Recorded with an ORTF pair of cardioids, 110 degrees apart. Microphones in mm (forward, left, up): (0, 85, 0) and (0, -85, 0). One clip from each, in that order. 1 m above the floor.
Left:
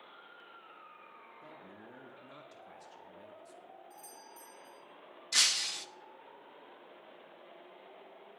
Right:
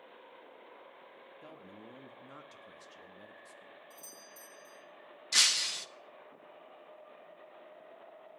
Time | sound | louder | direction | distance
1.4 | a man speaking | right 2 dB | 20° right | 1.5 m
3.9 | a doorbell | even | 35° right | 3 m
5.3 | breaking glass | right 2 dB | 10° right | 0.6 m